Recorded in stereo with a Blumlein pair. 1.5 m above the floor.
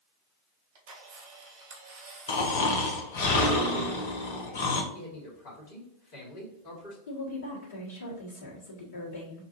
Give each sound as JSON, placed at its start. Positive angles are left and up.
{"t": 0.8, "sound": "a camera shutter", "azimuth_deg": -55, "distance_m": 1.3}
{"t": 2.3, "sound": "snoring", "azimuth_deg": 55, "distance_m": 0.9}
{"t": 4.9, "sound": "a man speaking", "azimuth_deg": 45, "distance_m": 1.8}
{"t": 7.1, "sound": "a woman speaking", "azimuth_deg": 55, "distance_m": 1.6}